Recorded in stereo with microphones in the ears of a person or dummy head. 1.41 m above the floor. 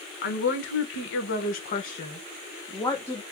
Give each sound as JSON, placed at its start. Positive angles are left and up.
{"t": 0.2, "sound": "a woman speaking", "side_deg": 70, "distance_m": 1.0}